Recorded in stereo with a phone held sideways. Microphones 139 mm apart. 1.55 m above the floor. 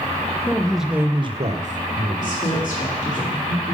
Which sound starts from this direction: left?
A woman speaking, at 2.2 s.